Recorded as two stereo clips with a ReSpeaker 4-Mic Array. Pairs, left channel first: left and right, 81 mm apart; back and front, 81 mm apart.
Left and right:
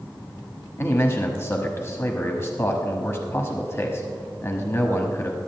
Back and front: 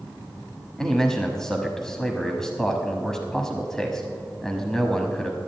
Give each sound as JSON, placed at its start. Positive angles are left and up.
{"t": 0.8, "sound": "a man speaking", "azimuth_deg": 100, "distance_m": 1.1}